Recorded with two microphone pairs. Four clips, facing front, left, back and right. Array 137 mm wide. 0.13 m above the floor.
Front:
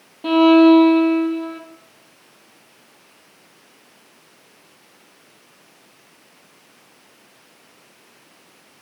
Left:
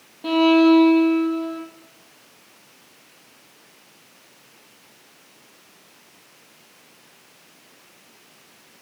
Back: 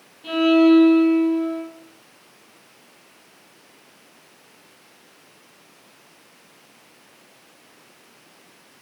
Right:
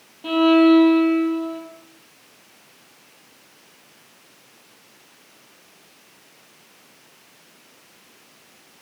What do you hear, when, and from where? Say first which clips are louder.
0.2 s a violin: even, front 4 dB; 10° left, 2.5 m